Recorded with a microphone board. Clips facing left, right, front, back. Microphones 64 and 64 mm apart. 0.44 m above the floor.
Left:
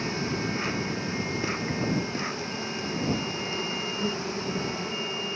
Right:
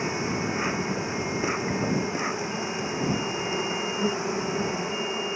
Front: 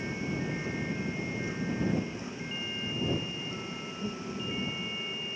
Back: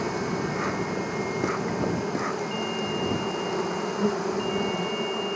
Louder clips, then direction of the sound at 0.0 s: Right 2 dB, back 7 dB; 165° right.